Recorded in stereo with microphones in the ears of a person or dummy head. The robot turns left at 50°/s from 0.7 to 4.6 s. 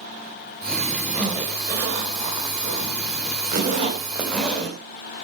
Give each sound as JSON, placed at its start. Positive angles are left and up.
{"t": 1.1, "sound": "a zipper", "side_deg": -20, "distance_m": 3.5}